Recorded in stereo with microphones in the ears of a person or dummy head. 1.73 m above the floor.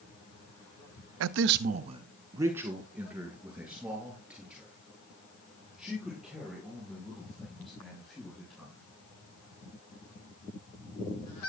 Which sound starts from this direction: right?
A man speaking, at 1.2 s.